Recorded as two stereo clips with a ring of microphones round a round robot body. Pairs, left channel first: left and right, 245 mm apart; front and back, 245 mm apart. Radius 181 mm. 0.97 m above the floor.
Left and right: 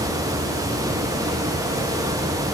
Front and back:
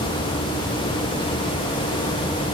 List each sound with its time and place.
Only background noise.